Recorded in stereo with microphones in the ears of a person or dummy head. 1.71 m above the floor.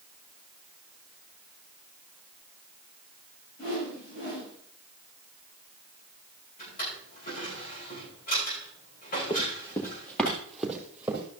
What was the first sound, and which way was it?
A whoosh, 50° left (ahead or behind).